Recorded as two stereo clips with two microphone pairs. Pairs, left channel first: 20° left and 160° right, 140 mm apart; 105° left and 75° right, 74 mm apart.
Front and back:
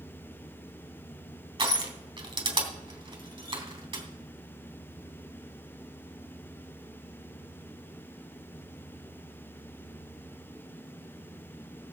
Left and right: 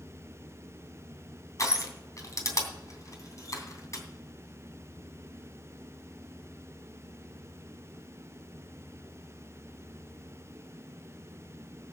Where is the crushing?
150° left, 3 m.